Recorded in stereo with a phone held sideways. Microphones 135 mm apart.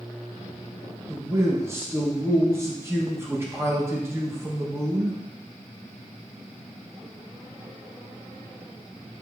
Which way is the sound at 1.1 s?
20° right (ahead or behind).